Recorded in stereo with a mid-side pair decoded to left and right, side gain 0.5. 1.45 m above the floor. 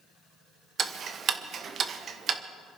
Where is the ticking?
50° right, 1.2 m.